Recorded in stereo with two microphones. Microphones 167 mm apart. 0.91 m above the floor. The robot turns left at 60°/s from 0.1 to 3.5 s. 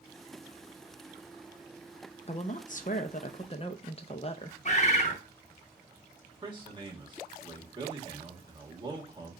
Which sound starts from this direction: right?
A man speaking, at 6.4 s.